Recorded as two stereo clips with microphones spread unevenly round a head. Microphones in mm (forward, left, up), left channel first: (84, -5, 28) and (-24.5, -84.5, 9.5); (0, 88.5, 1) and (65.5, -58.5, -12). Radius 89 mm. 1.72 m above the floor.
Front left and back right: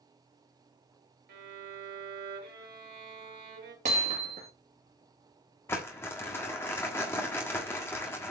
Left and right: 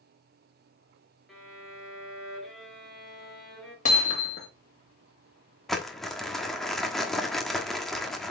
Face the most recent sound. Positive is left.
turn(degrees=40)